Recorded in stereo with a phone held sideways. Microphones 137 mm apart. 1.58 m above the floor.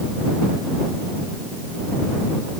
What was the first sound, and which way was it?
Only background noise.